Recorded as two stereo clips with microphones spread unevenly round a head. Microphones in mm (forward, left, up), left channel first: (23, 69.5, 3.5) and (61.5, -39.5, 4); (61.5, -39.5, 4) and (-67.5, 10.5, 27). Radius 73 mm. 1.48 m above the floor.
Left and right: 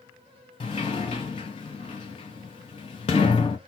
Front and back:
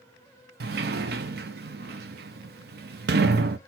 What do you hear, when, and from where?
0.6 s a sliding door: 165° left, 0.7 m